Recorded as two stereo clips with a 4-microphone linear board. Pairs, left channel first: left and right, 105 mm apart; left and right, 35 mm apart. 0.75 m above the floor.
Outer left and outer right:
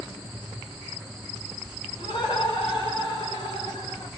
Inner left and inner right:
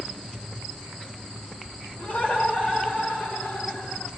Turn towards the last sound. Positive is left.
turn(degrees=70)  # may be behind; listen again after turning